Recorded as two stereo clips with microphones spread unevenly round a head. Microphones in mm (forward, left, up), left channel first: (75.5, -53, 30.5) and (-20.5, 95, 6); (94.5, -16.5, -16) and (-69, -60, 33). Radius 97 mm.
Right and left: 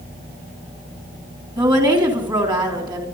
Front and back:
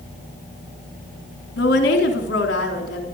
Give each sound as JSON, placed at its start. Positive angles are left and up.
{"t": 1.6, "sound": "a woman speaking", "azimuth_deg": 55, "distance_m": 3.5}